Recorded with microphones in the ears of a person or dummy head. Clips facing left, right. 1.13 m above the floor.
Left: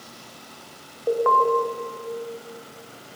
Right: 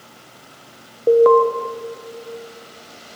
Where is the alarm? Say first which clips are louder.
Right 10 dB; 45° right (ahead or behind), 1.0 m.